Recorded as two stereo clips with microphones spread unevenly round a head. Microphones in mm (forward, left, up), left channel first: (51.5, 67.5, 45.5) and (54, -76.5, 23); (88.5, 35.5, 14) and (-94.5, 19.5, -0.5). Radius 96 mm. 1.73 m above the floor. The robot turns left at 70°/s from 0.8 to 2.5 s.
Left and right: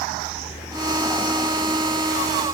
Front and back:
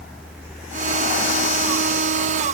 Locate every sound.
Only background noise.